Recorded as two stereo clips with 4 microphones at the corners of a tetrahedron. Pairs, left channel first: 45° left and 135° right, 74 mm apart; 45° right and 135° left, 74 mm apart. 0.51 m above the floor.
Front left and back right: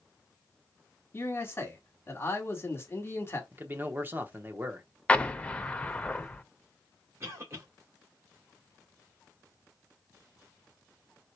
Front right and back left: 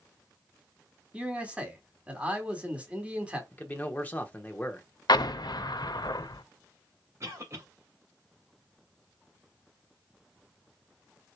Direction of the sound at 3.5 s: 95° right.